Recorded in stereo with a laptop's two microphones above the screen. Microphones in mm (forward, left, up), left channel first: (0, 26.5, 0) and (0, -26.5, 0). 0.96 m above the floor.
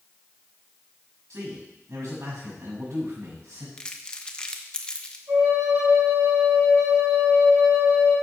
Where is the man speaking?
65° right (ahead or behind), 6 m.